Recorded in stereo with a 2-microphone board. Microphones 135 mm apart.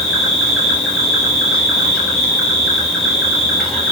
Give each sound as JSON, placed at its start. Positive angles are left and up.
{"t": 0.0, "sound": "an insect", "side_deg": 0, "distance_m": 0.8}